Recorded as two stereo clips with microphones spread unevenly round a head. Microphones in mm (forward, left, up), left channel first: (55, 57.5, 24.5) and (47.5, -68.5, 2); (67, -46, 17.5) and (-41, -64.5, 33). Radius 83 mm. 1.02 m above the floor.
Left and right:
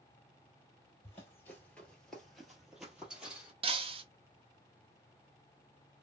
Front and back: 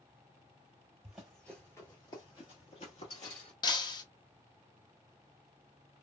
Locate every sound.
1.0 s running footsteps: 125° left, 1.1 m; by 3.5 s 5° right, 1.7 m
3.6 s breaking glass: 45° right, 0.7 m